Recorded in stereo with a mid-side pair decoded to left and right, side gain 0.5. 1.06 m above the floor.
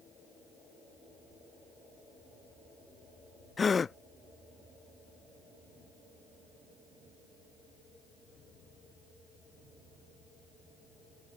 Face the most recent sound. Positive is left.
turn(degrees=30)